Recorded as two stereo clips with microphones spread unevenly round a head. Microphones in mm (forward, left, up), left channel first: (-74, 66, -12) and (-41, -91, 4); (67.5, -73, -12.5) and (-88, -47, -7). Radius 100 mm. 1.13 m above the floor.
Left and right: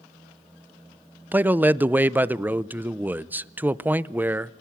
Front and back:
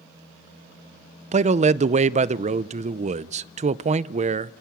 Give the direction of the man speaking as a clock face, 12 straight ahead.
5 o'clock.